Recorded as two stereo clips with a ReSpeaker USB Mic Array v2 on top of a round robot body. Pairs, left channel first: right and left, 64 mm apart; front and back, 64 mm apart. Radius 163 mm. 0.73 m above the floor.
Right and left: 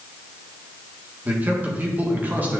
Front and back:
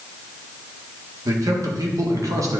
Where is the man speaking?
155° left, 1.8 m.